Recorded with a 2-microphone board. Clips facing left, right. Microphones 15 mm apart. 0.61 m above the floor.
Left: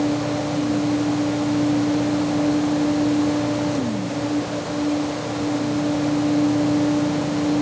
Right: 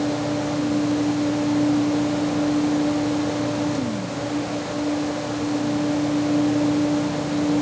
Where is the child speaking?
No child speaking in this recording.